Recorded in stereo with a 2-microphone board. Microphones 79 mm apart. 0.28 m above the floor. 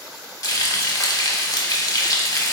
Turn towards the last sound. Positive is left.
turn(degrees=55)  # may be behind; listen again after turning